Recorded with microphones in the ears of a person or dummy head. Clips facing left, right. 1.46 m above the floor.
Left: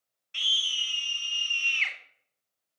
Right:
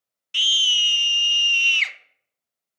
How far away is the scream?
About 1.2 m.